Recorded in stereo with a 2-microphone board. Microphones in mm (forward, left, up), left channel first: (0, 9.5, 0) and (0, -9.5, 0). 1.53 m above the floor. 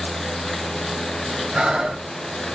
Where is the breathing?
50° right (ahead or behind), 2.5 m.